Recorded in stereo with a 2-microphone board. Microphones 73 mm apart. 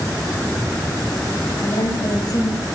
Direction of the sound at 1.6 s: 70° left (ahead or behind).